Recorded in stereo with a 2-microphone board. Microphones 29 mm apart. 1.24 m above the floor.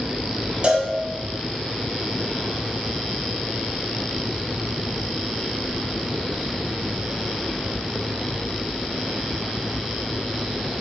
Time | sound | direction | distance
0.6 | a cowbell | 40° right (ahead or behind) | 0.8 m